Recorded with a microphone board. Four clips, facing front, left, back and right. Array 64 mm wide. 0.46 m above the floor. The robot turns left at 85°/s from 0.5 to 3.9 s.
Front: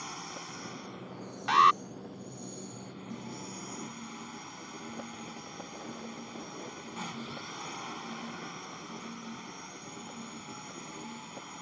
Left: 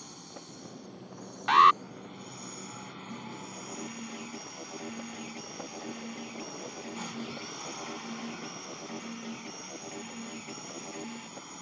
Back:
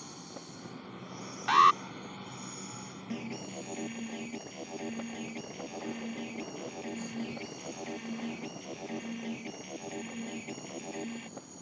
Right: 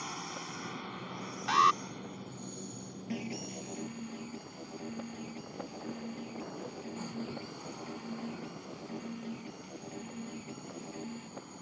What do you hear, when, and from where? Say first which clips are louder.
0.0 s a drone: right 7 dB, front 4 dB; 45° right; by 11.6 s 25° left
1.5 s an alarm: left 6 dB, even; 100° left; by 1.8 s 75° left
3.1 s an alarm: right 6 dB, back 5 dB; 130° right; by 11.3 s 160° left